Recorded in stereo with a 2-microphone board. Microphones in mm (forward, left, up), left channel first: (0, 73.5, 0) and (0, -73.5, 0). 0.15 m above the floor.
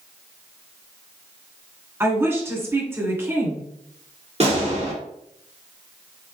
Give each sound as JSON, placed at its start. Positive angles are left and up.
{"t": 2.0, "sound": "a woman speaking", "side_deg": -15, "distance_m": 1.9}
{"t": 4.4, "sound": "a gunshot", "side_deg": -45, "distance_m": 2.5}